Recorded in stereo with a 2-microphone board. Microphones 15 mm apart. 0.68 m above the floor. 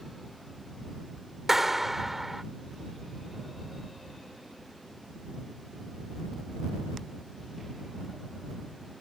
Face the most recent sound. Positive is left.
turn(degrees=-20)  # may be behind; listen again after turning